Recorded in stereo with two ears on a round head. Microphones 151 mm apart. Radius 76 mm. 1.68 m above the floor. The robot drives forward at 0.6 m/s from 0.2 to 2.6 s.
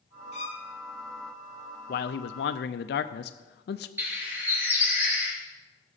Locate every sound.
0.3 s a violin: 40° left (ahead or behind), 1.0 m; by 0.7 s 35° left (ahead or behind), 1.1 m
1.9 s a man speaking: 55° left (ahead or behind), 0.5 m; by 3.9 s 65° left (ahead or behind), 0.5 m
4.0 s a bird: 10° right (ahead or behind), 2 m